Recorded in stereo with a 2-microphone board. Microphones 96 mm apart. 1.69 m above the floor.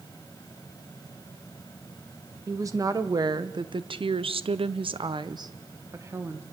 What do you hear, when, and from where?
2.5 s a woman speaking: 30° right (ahead or behind), 1.6 m; by 6.4 s 25° right (ahead or behind), 1.5 m